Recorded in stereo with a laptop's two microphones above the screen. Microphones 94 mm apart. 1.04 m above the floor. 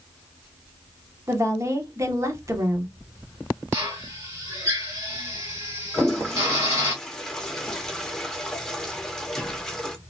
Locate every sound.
1.3 s a woman speaking: 30° right (ahead or behind), 0.8 m
3.7 s a drill: 30° right (ahead or behind), 1.5 m
5.9 s a toilet flushing: 5° left (ahead or behind), 0.6 m